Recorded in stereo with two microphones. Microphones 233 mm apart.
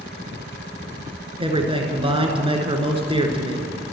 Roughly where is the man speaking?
Right.